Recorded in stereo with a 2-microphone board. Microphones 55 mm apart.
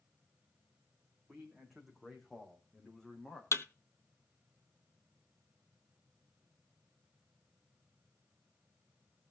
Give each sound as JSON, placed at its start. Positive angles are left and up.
{"t": 1.3, "sound": "a man speaking", "side_deg": -10, "distance_m": 6.0}
{"t": 3.5, "sound": "a thud", "side_deg": 55, "distance_m": 1.0}